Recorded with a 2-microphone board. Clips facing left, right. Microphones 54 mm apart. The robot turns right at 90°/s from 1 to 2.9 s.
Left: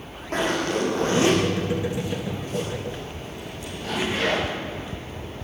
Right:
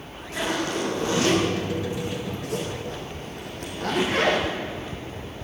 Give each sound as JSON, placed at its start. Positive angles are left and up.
{"t": 0.3, "sound": "a zipper", "side_deg": 50, "distance_m": 7.0}